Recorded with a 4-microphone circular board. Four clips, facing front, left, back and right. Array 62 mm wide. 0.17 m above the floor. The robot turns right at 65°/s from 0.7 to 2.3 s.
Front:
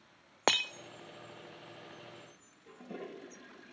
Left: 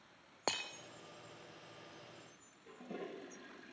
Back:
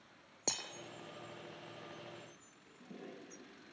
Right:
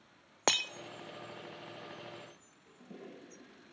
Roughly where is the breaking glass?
Ahead.